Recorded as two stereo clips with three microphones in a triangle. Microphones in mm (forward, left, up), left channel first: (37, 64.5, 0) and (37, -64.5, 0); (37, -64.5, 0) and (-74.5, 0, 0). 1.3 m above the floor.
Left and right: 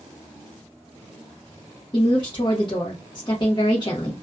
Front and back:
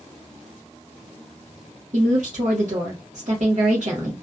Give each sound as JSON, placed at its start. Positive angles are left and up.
{"t": 1.9, "sound": "a woman speaking", "azimuth_deg": 135, "distance_m": 0.8}